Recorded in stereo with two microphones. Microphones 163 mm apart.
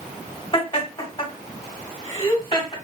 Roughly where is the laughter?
Left.